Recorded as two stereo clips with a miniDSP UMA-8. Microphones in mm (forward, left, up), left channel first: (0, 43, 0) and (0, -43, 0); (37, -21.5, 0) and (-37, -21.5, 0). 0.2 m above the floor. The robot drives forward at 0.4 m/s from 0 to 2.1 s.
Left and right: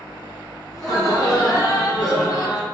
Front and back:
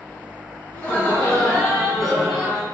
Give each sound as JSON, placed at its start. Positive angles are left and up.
{"t": 0.7, "sound": "laughter", "azimuth_deg": 65, "distance_m": 1.9}